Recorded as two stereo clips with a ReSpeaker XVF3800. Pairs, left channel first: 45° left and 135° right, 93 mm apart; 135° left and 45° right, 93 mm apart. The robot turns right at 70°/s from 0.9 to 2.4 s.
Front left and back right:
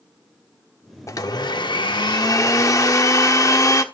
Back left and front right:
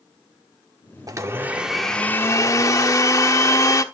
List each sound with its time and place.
1.1 s a blender: 5° right, 1.1 m; by 3.8 s 90° left, 1.1 m